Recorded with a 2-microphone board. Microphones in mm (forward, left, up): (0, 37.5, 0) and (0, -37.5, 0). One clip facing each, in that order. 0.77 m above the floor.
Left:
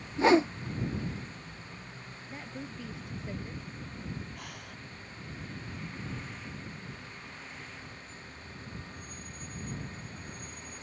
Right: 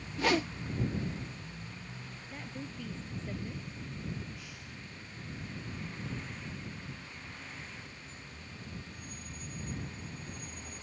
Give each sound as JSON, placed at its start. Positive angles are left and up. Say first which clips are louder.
{"t": 0.2, "sound": "a whoosh", "louder": "left 7 dB", "side_deg": 30}
{"t": 2.3, "sound": "a woman speaking", "louder": "left 2 dB", "side_deg": 10}
{"t": 4.3, "sound": "breathing", "louder": "left 3 dB", "side_deg": 55}